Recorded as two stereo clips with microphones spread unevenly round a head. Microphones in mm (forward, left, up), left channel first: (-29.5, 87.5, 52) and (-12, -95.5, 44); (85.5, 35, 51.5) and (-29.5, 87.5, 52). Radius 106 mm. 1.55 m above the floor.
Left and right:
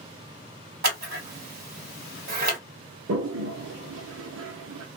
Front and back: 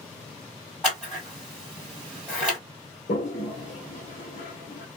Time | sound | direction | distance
0.8 | scissors | 115° right | 1.9 m
3.1 | a toilet flushing | 75° right | 0.8 m